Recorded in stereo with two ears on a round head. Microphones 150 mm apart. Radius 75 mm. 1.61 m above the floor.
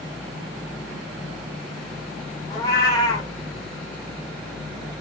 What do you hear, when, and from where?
2.5 s a cat meowing: 25° left (ahead or behind), 0.8 m